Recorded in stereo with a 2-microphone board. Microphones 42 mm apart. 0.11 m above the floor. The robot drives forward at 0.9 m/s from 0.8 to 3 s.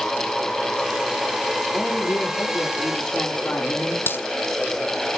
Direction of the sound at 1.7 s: 45° left (ahead or behind).